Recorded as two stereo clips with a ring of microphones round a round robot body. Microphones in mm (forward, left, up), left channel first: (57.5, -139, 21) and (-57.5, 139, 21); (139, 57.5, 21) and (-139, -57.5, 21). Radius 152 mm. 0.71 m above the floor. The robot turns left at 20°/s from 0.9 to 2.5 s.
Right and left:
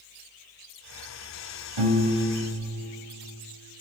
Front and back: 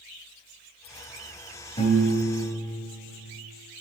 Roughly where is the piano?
Left.